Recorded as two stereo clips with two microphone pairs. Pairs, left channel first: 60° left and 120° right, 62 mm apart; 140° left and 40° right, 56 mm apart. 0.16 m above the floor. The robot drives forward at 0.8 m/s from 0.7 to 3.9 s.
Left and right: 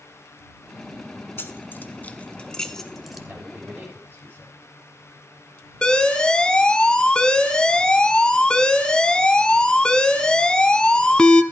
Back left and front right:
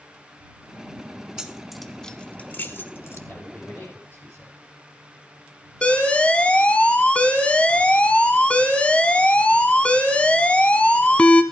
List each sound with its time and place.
1.4 s keys jangling: 30° left, 1.1 m; by 3.2 s 155° left, 1.2 m
3.3 s a man speaking: 175° right, 7 m
5.8 s an alarm: 115° left, 0.9 m